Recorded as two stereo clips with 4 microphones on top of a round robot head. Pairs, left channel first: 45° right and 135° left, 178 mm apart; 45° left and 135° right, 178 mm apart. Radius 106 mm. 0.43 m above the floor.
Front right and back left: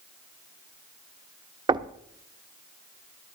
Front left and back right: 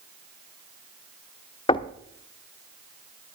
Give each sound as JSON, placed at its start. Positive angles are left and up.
{"t": 1.7, "sound": "knocking", "azimuth_deg": 85, "distance_m": 0.8}